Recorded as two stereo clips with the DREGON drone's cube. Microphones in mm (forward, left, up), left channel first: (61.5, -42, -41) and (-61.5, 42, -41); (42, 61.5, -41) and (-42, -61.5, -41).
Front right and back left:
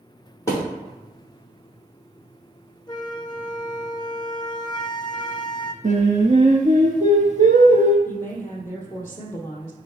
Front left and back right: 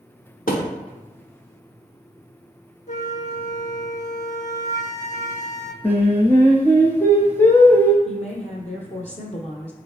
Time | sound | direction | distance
0.5 | a thud | 35° left | 3 m
2.9 | a flute | 25° left | 0.6 m
5.8 | singing | 130° left | 1.1 m
8.1 | a woman speaking | 35° left | 1.7 m